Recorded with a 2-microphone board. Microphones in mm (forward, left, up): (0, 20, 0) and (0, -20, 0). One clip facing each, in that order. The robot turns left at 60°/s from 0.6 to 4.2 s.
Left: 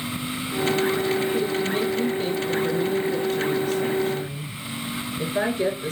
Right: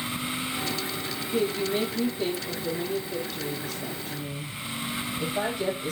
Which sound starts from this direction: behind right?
A woman speaking, at 1.3 s.